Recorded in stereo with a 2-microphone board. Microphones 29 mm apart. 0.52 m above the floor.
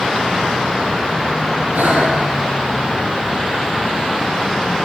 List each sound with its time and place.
1.7 s breathing: 75° right (ahead or behind), 4.5 m